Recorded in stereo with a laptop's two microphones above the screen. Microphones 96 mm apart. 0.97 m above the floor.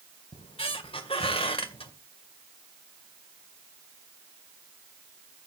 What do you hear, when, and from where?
0.3 s a squeak: 80° left, 2.0 m